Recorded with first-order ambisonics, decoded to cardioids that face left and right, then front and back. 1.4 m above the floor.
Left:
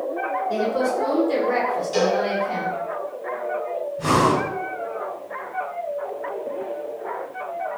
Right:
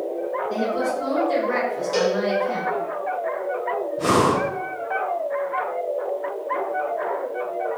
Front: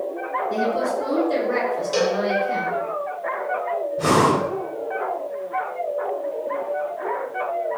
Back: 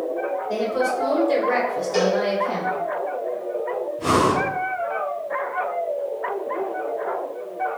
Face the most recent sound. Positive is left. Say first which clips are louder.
# even, front 1 dB
turn(degrees=-25)